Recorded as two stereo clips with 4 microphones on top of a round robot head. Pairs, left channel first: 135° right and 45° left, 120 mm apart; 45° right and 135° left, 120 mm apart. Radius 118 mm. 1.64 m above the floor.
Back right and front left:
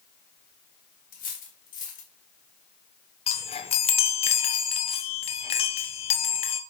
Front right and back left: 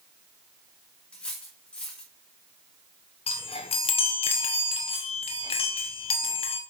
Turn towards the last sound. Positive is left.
turn(degrees=-95)